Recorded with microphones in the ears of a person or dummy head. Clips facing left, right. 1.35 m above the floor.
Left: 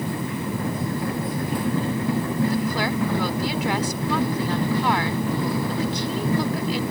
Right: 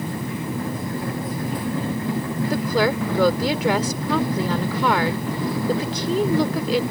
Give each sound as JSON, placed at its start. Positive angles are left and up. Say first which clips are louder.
{"t": 2.5, "sound": "a woman speaking", "louder": "right 3 dB", "side_deg": -65}